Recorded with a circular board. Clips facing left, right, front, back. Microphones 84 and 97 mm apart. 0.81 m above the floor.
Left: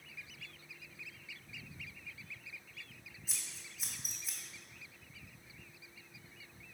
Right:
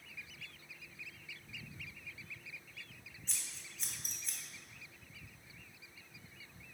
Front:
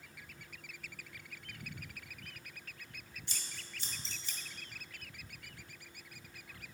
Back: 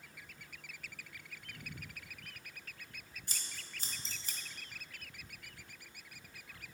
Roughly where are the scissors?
Behind.